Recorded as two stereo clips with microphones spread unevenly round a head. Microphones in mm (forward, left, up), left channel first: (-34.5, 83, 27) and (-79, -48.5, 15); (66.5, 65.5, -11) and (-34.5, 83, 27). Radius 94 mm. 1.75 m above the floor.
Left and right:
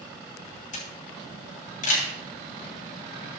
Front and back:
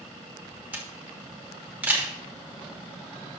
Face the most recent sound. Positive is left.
turn(degrees=95)